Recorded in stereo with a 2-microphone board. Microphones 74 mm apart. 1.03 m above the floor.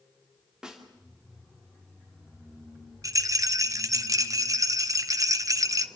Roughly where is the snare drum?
Centre.